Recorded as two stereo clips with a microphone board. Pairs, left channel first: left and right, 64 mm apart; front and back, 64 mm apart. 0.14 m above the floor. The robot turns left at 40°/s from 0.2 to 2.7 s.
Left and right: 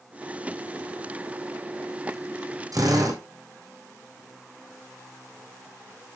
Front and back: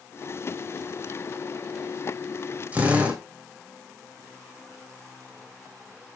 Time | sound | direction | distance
2.7 | a drill | 110° right | 3 m